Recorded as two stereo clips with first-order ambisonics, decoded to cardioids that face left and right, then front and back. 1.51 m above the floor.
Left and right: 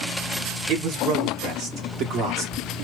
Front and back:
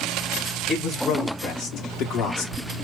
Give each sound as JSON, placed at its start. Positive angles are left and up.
{"t": 0.7, "sound": "a man speaking", "azimuth_deg": -65, "distance_m": 1.7}